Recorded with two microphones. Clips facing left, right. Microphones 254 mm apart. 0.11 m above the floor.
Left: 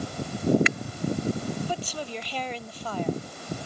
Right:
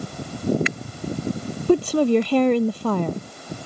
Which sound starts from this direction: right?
A woman speaking, at 1.7 s.